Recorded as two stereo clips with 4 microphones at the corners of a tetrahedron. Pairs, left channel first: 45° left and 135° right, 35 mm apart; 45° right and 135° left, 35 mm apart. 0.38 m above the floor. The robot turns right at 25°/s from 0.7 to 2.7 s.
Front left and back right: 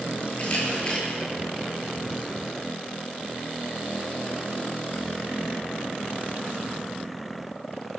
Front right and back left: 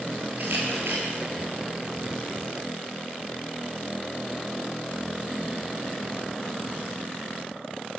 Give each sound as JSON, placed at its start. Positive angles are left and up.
{"t": 0.4, "sound": "a camera shutter", "azimuth_deg": 105, "distance_m": 8.5}